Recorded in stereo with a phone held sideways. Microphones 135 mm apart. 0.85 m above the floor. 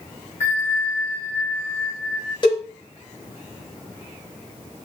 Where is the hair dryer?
No hair dryer in this recording.